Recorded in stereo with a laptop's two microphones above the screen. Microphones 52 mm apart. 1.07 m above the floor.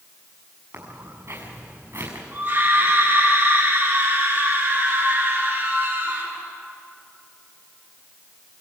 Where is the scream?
40° right (ahead or behind), 9 m.